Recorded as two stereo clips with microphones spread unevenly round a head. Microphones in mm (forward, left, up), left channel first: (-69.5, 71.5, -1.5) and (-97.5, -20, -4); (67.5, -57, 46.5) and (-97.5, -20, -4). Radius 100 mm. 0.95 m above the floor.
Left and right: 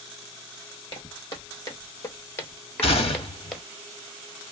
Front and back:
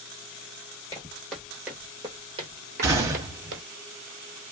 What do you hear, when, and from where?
0.9 s footsteps: 40° left, 1.3 m; by 3.6 s 155° left, 1.2 m
2.8 s a gunshot: 90° left, 0.7 m